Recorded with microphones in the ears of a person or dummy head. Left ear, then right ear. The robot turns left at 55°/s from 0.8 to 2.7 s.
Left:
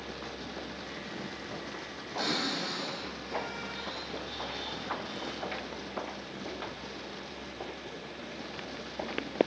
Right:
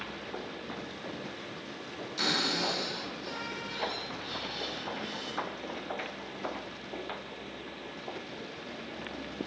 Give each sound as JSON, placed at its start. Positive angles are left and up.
{"t": 2.2, "sound": "a cupboard door", "side_deg": -15, "distance_m": 1.9}